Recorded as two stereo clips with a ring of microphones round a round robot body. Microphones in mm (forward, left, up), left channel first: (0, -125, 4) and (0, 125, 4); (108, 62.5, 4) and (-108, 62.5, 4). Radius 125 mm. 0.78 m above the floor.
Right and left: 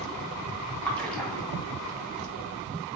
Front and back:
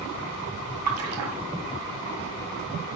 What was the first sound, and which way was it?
A splash, 175° right.